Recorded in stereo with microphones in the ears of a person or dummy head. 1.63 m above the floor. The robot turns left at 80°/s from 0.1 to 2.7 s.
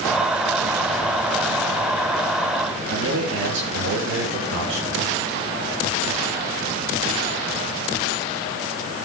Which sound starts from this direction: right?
A man speaking, at 2.9 s.